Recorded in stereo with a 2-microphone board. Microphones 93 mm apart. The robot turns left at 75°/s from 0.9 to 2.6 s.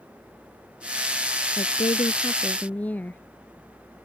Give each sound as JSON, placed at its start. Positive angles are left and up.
{"t": 1.6, "sound": "a woman speaking", "azimuth_deg": 95}